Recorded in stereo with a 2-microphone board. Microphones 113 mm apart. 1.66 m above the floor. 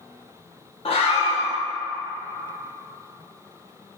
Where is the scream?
55° left (ahead or behind), 1.1 m.